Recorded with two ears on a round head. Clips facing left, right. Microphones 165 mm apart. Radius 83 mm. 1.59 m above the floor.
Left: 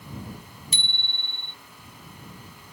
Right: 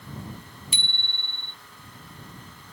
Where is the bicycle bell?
40° left (ahead or behind).